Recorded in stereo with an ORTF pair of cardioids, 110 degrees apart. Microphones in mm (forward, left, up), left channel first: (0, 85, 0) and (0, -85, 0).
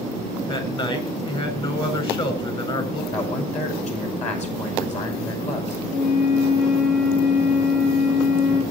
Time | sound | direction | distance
0.5 | a man speaking | 30° left | 8 m
3.1 | a man speaking | 40° left | 9.5 m
5.9 | a flute | 55° left | 7.5 m